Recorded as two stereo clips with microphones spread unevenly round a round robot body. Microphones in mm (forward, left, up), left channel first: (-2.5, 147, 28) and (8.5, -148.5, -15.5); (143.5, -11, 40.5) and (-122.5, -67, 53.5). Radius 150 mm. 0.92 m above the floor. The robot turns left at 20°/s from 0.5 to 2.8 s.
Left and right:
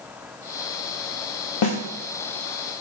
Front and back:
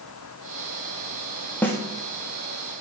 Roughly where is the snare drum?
Left.